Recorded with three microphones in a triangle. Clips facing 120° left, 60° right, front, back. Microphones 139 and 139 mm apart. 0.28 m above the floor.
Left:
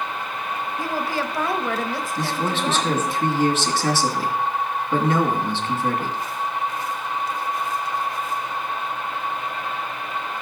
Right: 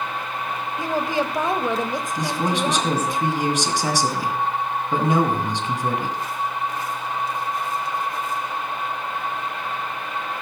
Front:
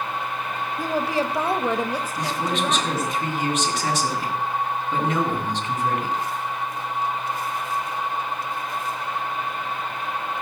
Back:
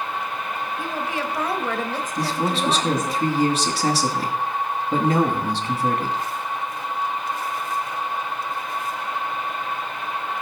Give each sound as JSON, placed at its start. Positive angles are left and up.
{"t": 0.8, "sound": "a woman speaking", "azimuth_deg": 0, "distance_m": 1.2}
{"t": 2.2, "sound": "a man speaking", "azimuth_deg": -135, "distance_m": 2.5}